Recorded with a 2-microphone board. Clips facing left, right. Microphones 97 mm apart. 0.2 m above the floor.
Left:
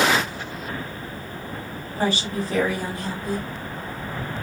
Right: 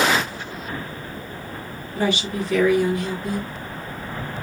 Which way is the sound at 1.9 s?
35° left (ahead or behind).